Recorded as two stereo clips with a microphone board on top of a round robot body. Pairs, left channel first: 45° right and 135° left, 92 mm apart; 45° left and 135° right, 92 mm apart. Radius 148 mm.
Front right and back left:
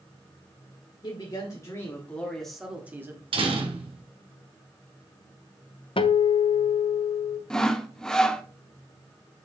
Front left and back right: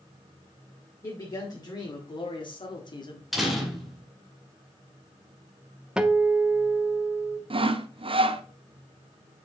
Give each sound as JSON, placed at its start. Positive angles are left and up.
{"t": 1.0, "sound": "a man speaking", "azimuth_deg": -5, "distance_m": 3.0}
{"t": 3.3, "sound": "a door slam", "azimuth_deg": 135, "distance_m": 2.0}
{"t": 6.0, "sound": "a guitar", "azimuth_deg": -55, "distance_m": 0.8}
{"t": 7.5, "sound": "sawing", "azimuth_deg": -130, "distance_m": 0.9}